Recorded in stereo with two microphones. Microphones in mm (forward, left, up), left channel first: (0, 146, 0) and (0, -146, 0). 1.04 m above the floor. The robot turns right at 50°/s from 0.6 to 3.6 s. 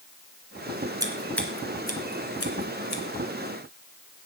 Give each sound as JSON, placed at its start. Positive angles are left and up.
{"t": 1.0, "sound": "scissors", "side_deg": -15, "distance_m": 2.0}